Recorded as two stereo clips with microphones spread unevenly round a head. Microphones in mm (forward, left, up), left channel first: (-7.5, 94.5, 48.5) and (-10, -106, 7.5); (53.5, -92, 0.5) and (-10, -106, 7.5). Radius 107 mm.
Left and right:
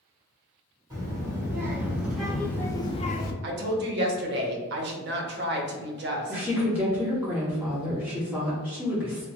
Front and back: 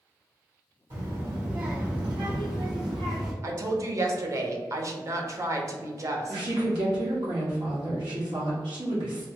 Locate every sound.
0.9 s a child speaking: 165° right, 1.6 m; by 3.3 s 135° left, 0.5 m
3.4 s a woman speaking: 125° right, 0.7 m
6.3 s a woman speaking: 175° right, 1.3 m